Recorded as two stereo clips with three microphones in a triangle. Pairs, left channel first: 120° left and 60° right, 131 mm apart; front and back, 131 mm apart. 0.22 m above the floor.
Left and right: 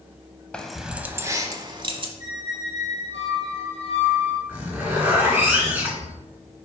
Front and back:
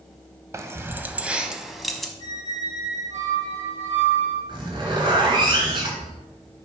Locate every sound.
0.5 s keys jangling: 170° right, 0.7 m; by 2.1 s 85° right, 1.0 m
2.2 s a squeak: 160° left, 4 m
4.5 s a zipper: 135° right, 2.5 m